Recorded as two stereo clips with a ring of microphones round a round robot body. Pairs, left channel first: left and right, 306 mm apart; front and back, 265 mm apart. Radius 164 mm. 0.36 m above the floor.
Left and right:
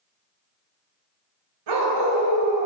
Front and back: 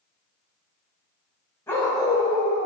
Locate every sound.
1.7 s a dog barking: 80° right, 0.9 m; by 2.7 s 105° right, 1.6 m